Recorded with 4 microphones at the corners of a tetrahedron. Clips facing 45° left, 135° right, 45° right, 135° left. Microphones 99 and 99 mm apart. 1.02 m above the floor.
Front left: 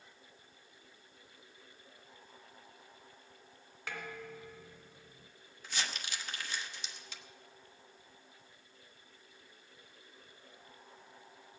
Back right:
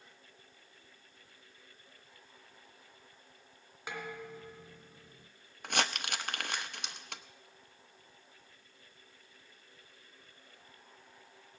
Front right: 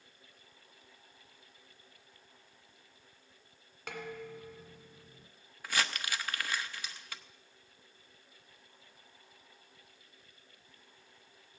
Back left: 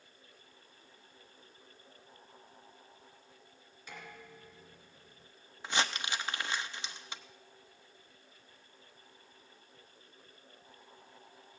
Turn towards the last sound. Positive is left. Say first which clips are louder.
# back right 7 dB, back left 2 dB
turn(degrees=-160)